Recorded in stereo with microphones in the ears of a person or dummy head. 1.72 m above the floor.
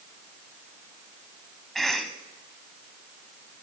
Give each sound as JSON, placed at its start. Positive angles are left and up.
{"t": 1.8, "sound": "a cough", "side_deg": 0, "distance_m": 1.1}